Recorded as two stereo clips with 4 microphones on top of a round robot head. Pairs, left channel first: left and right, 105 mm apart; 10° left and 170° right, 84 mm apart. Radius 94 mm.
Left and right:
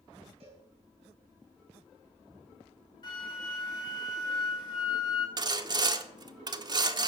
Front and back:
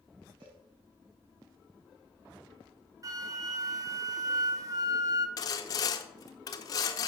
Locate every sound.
0.4 s a cowbell: 130° right, 6 m
3.0 s a flute: 145° left, 1.1 m
5.4 s sawing: 40° right, 0.9 m